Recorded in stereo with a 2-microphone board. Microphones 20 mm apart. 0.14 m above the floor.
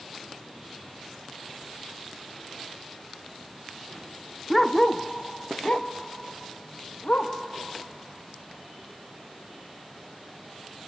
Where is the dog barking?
Centre (ahead or behind), 0.6 m; by 7.3 s 75° left (ahead or behind), 2.0 m.